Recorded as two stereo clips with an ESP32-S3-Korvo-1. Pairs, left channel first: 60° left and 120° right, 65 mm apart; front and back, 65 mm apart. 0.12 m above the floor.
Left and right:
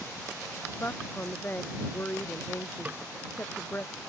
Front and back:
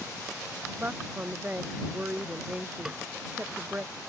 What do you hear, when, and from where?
0.8 s a woman speaking: 120° left
2.9 s a snare drum: 120° right